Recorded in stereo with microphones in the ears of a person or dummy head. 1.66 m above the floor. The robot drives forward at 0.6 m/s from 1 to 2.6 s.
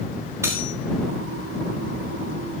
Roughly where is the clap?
I don't hear a clap.